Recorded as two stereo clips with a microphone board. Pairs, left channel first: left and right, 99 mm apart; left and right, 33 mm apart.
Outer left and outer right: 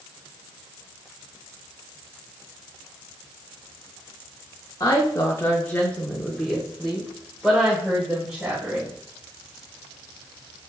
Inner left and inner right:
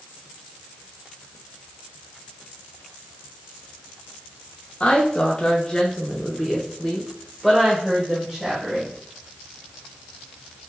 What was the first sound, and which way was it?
A woman speaking, 35° left (ahead or behind).